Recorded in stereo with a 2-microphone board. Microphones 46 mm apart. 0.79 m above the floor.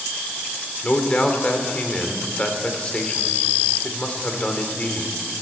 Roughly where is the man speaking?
Left.